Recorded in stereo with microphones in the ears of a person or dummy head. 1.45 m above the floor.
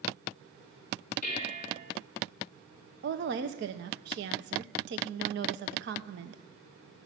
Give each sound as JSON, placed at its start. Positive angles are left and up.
{"t": 1.2, "sound": "dishes clattering", "side_deg": 45, "distance_m": 3.5}
{"t": 3.0, "sound": "a woman speaking", "side_deg": -60, "distance_m": 0.9}